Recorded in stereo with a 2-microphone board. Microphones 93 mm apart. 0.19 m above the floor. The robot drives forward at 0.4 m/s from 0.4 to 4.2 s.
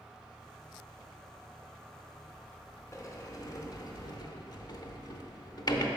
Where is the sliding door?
35° left (ahead or behind), 0.9 m; by 5.9 s 45° left (ahead or behind), 0.7 m.